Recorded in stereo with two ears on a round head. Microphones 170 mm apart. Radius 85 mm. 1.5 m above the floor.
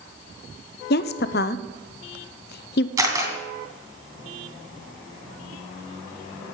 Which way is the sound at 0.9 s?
55° left (ahead or behind).